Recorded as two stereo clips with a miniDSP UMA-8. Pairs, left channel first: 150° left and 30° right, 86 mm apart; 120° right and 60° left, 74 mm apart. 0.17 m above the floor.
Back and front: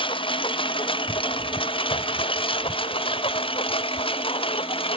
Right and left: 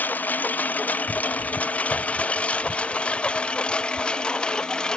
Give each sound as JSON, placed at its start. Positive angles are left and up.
{"t": 0.0, "sound": "a lawn mower", "azimuth_deg": 170}